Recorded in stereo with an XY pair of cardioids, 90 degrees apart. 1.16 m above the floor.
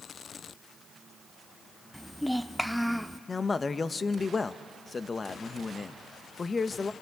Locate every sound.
1.9 s a child speaking: straight ahead, 0.5 m
3.3 s a man speaking: 35° left, 0.8 m